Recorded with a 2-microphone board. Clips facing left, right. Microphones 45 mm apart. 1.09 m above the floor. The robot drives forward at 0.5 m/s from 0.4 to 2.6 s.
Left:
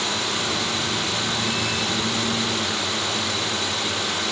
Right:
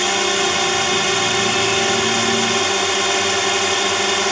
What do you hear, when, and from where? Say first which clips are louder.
0.0 s a drone: right 7 dB; 60° right (ahead or behind)